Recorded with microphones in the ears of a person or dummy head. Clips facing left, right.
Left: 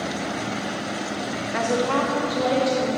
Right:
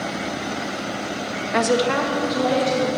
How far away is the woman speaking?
About 0.6 m.